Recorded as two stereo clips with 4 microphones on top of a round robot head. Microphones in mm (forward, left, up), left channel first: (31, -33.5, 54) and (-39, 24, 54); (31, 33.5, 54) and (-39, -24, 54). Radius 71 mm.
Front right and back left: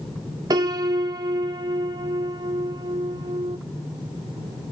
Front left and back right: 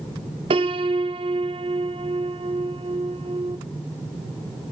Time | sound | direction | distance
0.5 | a piano | 165° right | 0.7 m